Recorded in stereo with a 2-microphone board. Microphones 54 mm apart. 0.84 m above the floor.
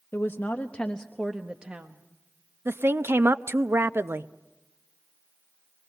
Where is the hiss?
I don't hear a hiss.